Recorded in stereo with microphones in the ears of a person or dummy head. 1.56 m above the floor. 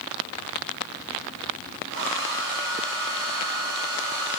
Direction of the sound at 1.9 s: 65° right (ahead or behind).